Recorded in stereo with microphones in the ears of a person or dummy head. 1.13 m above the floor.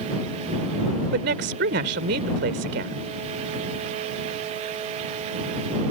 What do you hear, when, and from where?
1.1 s a woman speaking: 65° right (ahead or behind)